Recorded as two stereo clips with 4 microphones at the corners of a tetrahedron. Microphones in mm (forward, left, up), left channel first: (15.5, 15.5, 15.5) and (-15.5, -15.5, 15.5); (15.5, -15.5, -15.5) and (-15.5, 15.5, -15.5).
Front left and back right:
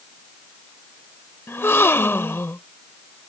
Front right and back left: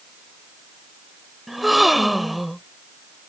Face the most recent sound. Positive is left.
turn(degrees=45)